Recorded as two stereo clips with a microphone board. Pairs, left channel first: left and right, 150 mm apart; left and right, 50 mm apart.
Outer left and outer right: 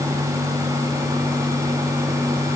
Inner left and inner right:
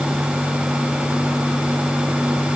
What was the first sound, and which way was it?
Only background noise.